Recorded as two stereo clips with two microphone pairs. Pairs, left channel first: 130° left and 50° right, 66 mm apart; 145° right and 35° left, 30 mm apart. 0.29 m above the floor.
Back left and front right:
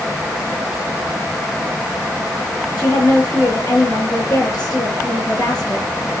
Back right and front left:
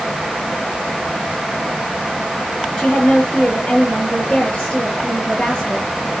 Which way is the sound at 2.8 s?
155° left.